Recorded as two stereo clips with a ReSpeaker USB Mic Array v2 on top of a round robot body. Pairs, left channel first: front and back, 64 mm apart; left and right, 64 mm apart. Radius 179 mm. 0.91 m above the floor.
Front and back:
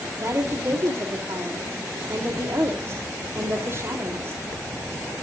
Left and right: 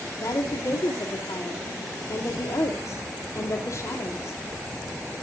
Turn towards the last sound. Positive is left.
turn(degrees=130)